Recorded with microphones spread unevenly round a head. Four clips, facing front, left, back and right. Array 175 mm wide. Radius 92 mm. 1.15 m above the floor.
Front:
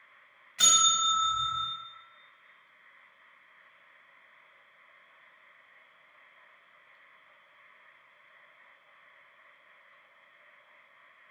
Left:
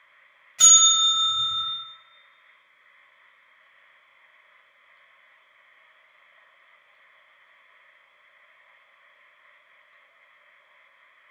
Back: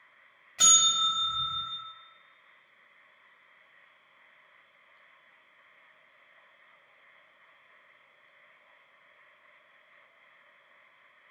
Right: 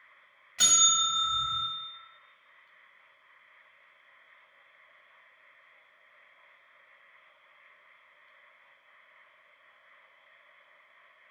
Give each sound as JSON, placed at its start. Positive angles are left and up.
{"t": 0.6, "sound": "a bell", "azimuth_deg": -165, "distance_m": 1.1}